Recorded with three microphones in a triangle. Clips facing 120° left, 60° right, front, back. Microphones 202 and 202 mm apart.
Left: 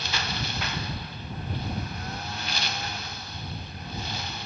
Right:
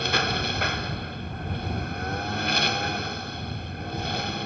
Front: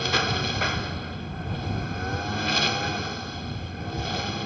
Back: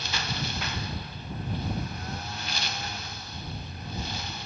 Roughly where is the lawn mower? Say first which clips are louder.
Right 7 dB, front 8 dB; ahead right.